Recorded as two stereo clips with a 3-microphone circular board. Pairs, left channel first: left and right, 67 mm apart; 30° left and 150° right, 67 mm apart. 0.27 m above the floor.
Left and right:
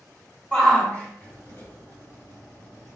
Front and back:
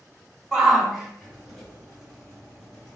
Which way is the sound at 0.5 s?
125° left.